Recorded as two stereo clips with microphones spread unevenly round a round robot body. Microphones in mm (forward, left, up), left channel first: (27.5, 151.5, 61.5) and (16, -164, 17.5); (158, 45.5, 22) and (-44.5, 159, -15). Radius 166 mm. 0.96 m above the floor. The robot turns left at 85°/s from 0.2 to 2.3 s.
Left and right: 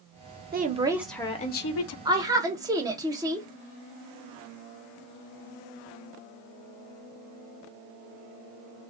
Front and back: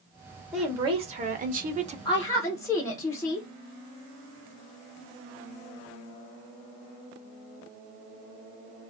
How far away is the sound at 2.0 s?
About 0.6 m.